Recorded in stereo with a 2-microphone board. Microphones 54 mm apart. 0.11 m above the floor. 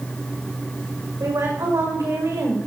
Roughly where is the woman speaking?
Right.